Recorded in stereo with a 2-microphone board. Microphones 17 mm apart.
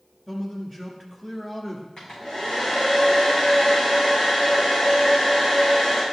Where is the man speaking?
20° left (ahead or behind), 1.3 m.